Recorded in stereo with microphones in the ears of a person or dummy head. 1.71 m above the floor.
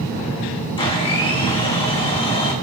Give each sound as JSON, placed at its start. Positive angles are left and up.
{"t": 0.8, "sound": "a blender", "side_deg": 20, "distance_m": 1.5}